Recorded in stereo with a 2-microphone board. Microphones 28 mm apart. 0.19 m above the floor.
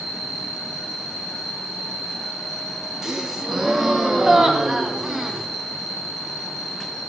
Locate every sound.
0.0 s an insect: 65° right (ahead or behind), 6.5 m
3.0 s a gasp: 15° right (ahead or behind), 1.4 m